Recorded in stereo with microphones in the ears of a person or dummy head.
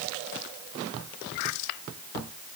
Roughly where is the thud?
No thud in this recording.